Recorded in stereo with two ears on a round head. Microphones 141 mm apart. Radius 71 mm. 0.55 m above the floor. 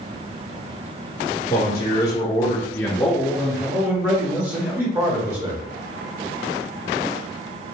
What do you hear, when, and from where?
1.5 s a man speaking: 25° left (ahead or behind), 1.0 m; by 5.6 s 20° right (ahead or behind), 1.8 m